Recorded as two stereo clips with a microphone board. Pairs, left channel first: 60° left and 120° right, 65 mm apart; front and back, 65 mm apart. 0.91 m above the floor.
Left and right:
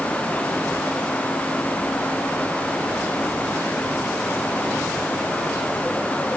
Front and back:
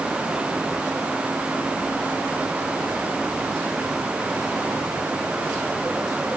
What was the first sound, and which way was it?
Only background noise.